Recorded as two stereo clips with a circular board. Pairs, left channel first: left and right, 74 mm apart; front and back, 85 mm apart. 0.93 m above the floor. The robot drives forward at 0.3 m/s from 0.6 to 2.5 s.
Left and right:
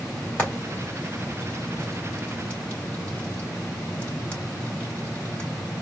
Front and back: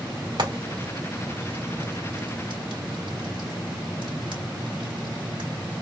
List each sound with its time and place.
0.4 s frying: 160° left, 2.5 m; by 5.5 s 165° left, 3 m